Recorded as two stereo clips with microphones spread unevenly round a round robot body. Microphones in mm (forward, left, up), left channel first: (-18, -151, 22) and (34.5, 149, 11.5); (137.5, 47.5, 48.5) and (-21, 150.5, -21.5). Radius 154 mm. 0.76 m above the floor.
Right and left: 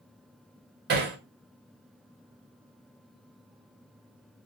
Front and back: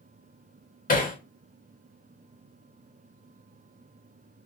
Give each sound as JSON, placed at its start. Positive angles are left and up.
{"t": 0.9, "sound": "hammering", "azimuth_deg": 20, "distance_m": 0.8}